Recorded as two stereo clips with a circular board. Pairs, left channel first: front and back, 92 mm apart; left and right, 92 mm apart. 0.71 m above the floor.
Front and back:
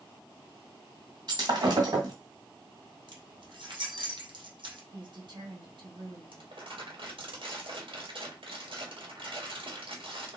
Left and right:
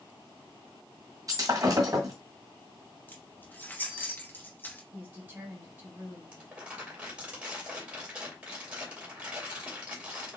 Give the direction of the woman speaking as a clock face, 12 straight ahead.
5 o'clock.